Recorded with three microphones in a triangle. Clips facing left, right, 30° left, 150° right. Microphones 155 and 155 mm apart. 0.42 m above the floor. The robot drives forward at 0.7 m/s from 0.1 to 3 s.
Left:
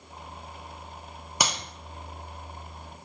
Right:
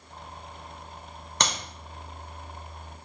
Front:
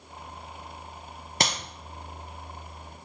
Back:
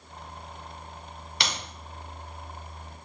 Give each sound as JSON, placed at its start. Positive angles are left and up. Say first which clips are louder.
{"t": 1.4, "sound": "a clap", "louder": "even, front 4 dB", "azimuth_deg": 15, "distance_m": 0.8}